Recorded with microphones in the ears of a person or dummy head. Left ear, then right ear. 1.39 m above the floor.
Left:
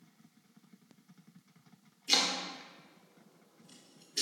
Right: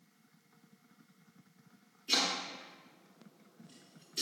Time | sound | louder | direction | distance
2.1 | chopping | left 2 dB | 15° left (ahead or behind) | 0.5 m